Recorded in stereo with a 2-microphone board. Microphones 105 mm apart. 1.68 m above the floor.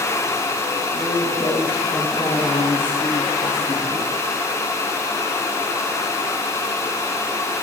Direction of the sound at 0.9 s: 60° left (ahead or behind).